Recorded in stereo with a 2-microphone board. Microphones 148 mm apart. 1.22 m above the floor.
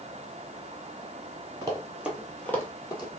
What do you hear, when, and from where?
1.6 s running footsteps: 25° right (ahead or behind), 1.3 m; by 3.2 s 30° left (ahead or behind), 1.6 m